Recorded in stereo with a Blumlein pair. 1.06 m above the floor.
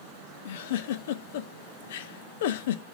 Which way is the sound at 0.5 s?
55° left.